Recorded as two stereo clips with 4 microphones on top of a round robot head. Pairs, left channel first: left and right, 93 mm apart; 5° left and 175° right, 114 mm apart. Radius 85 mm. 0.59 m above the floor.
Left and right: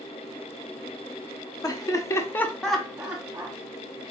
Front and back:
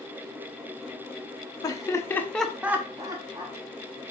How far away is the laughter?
About 0.8 m.